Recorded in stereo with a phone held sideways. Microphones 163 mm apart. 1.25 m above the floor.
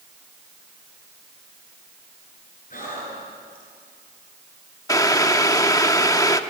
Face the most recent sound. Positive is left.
turn(degrees=20)  # may be behind; listen again after turning